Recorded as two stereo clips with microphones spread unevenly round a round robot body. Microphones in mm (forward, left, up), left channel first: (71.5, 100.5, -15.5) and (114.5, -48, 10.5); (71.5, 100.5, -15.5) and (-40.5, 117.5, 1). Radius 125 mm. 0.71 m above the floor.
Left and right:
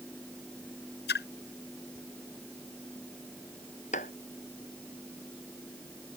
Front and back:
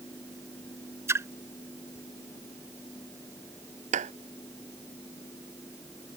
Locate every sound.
1.1 s a splash: 105° left
3.9 s a clap: 170° left